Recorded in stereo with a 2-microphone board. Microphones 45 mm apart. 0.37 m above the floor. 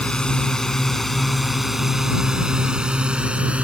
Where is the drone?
20° left (ahead or behind); by 3.6 s 30° right (ahead or behind).